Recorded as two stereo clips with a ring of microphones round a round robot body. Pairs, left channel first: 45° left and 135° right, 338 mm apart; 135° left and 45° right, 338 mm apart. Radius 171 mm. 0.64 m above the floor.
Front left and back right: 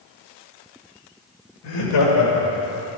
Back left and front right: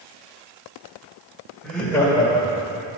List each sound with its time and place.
1.6 s laughter: 45° left, 3.5 m; by 2.9 s 80° left, 2.5 m